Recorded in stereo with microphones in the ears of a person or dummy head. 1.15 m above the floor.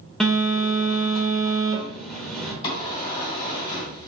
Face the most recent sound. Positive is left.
turn(degrees=30)  # may be behind; listen again after turning